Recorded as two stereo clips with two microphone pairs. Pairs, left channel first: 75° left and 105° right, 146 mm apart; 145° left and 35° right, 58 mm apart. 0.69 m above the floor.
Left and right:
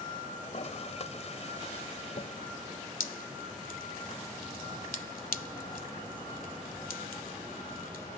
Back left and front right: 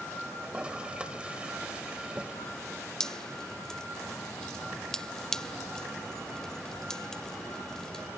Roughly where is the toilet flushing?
Ahead left.